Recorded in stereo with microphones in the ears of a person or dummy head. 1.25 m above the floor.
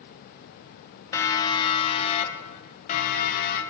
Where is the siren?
15° left (ahead or behind), 3 m; by 3.6 s 50° left (ahead or behind), 5 m.